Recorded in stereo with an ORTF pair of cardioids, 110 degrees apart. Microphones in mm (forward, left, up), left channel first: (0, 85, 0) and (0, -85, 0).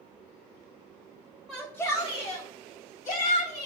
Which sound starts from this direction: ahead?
A shout, at 1.5 s.